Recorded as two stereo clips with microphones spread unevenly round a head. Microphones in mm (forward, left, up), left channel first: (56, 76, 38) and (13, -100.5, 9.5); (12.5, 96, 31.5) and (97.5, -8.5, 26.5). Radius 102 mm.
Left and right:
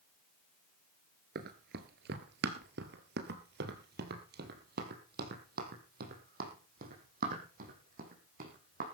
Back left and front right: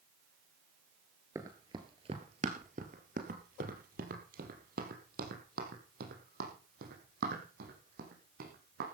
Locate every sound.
1.4 s running footsteps: 120° right, 1.3 m; by 8.9 s 60° right, 4.5 m